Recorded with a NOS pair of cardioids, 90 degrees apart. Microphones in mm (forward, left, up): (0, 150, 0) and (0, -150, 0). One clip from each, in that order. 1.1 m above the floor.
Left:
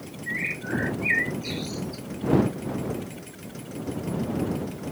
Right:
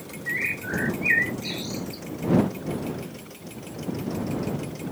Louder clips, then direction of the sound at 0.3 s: Right 2 dB; 15° right.